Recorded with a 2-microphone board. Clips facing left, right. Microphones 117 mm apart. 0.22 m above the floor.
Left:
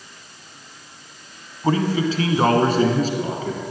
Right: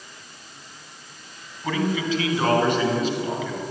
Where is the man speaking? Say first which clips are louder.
Left 4 dB; 35° left (ahead or behind), 1.3 m; by 3.6 s 40° left (ahead or behind), 2.5 m.